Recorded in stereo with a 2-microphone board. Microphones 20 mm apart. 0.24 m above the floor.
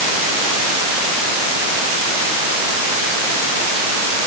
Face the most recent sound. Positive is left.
No sound to turn to.